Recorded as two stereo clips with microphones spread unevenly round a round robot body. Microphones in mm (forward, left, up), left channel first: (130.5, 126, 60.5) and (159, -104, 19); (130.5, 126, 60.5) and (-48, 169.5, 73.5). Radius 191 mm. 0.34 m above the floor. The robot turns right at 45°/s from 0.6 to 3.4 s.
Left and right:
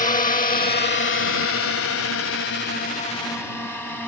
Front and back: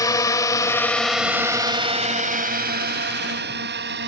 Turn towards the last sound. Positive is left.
turn(degrees=-175)